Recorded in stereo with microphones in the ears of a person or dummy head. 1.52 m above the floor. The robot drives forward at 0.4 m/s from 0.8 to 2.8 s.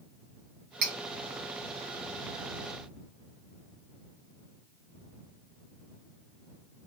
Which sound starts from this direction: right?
Cutlery clinking, at 0.8 s.